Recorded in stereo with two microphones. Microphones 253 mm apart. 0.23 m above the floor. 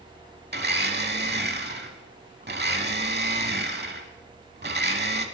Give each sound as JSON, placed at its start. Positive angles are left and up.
{"t": 0.5, "sound": "a blender", "side_deg": -40, "distance_m": 0.7}